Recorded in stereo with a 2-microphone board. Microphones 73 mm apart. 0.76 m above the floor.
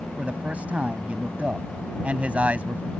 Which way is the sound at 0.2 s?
20° right (ahead or behind).